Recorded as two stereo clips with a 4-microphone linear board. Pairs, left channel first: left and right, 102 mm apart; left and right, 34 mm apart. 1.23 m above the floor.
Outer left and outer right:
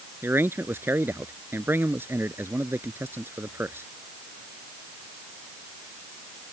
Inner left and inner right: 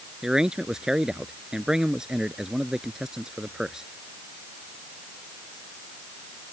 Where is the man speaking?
20° right (ahead or behind).